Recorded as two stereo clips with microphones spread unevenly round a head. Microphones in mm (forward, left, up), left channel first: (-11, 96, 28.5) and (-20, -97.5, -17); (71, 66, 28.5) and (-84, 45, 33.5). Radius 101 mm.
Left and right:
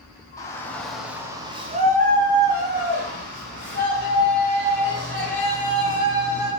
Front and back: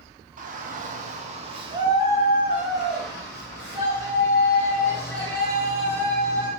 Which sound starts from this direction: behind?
A shout, at 0.4 s.